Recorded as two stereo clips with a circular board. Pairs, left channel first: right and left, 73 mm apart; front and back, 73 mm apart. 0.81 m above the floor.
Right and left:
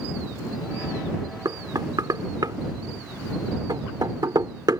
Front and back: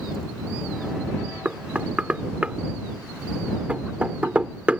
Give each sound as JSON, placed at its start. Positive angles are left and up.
{"t": 1.4, "sound": "knocking", "azimuth_deg": 110}